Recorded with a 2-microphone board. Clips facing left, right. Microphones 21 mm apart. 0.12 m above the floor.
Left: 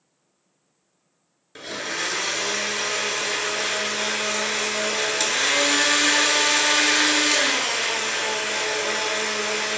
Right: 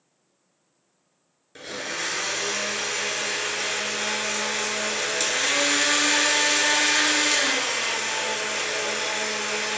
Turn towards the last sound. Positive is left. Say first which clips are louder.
# left 2 dB
turn(degrees=15)  # may be behind; listen again after turning